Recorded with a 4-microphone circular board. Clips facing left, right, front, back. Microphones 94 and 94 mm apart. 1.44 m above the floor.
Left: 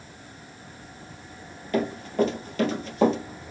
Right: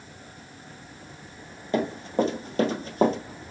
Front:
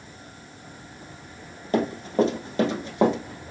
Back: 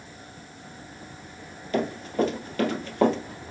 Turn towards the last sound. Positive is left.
turn(degrees=-65)